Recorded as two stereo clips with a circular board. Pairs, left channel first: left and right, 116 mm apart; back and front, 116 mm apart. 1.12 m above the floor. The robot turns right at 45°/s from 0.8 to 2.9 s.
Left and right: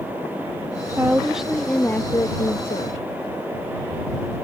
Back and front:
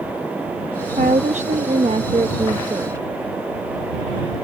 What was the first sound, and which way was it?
A woman speaking, 25° right.